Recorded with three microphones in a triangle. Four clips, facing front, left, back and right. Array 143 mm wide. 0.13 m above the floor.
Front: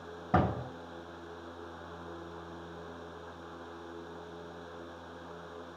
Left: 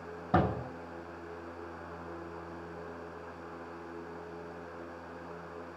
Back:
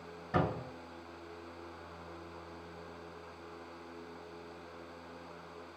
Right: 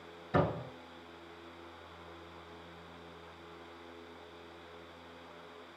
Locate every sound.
0.3 s a door slam: 50° left, 4 m